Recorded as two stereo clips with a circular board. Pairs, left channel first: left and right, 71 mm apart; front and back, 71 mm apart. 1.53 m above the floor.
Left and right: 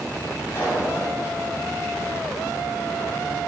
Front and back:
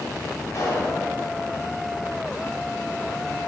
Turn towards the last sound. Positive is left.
turn(degrees=40)